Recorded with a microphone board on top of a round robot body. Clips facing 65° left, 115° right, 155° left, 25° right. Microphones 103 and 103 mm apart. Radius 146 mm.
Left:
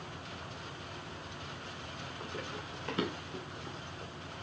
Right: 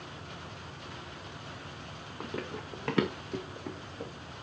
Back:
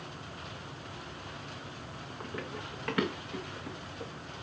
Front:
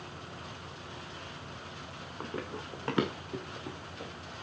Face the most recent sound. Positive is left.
turn(degrees=-105)